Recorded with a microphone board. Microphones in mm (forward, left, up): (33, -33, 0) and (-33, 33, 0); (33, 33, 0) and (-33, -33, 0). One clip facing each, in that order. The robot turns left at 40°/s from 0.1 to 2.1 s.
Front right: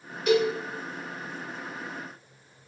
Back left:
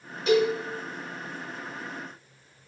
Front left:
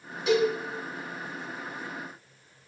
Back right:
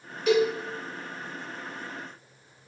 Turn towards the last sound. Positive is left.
turn(degrees=20)